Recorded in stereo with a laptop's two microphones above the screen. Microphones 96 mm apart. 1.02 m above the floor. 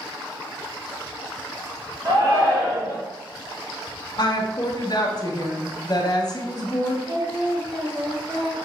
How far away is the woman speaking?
About 0.6 m.